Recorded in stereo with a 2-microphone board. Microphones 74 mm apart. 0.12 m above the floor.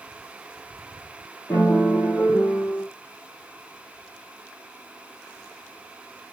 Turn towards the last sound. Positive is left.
turn(degrees=35)  # may be behind; listen again after turning